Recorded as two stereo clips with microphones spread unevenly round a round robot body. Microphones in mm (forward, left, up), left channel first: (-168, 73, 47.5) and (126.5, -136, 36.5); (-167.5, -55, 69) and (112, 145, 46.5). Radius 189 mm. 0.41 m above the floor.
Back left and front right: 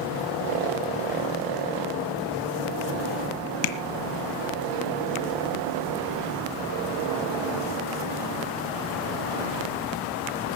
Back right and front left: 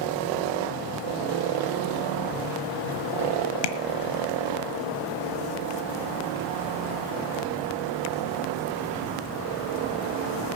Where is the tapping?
165° right, 1.5 m.